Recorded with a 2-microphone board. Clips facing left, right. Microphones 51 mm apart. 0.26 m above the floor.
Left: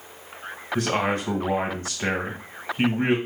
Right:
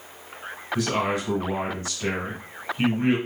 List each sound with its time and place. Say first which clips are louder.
0.8 s a man speaking: left 1 dB; 40° left (ahead or behind), 1.2 m